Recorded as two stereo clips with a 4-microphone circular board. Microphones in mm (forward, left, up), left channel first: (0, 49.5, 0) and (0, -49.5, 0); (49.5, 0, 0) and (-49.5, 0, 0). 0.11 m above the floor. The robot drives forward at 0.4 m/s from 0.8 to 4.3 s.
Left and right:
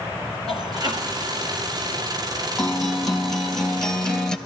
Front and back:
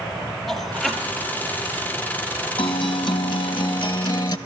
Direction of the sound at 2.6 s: 5° left.